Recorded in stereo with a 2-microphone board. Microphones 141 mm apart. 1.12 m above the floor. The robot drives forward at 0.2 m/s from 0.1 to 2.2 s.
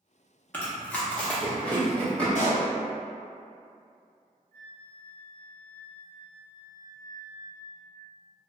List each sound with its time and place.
0.5 s chewing: 10° left (ahead or behind), 0.7 m
2.4 s a pop: 60° left (ahead or behind), 0.7 m
4.5 s a flute: 45° right (ahead or behind), 0.6 m